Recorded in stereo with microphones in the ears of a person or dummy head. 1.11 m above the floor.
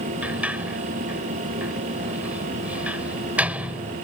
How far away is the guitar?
I don't hear a guitar.